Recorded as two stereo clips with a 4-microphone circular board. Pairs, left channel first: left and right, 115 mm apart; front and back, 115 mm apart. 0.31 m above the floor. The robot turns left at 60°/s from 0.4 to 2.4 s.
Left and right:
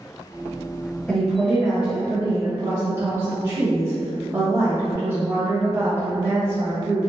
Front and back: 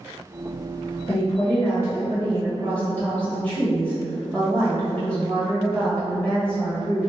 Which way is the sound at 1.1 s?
15° left.